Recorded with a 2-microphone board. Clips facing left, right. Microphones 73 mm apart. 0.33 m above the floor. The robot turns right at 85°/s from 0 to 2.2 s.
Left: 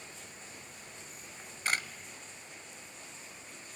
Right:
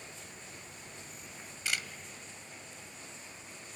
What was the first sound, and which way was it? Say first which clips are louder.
A camera shutter: left 4 dB; 50° left (ahead or behind).